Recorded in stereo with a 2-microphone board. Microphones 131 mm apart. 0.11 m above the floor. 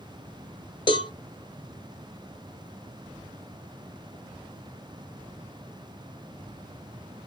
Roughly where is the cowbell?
Left.